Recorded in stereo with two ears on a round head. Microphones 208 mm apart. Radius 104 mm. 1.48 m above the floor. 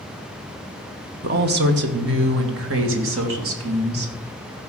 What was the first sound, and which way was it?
A woman speaking, 45° right (ahead or behind).